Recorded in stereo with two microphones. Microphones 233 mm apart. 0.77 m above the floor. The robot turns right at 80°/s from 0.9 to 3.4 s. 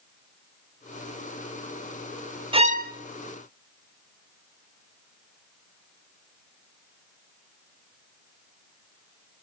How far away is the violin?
About 0.7 m.